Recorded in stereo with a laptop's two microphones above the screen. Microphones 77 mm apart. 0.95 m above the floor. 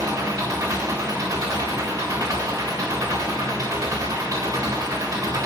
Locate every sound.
0.0 s an engine running: 50° right (ahead or behind), 3.5 m